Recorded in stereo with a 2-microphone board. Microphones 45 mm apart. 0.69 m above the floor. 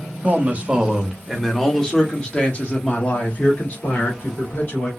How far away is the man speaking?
About 0.9 m.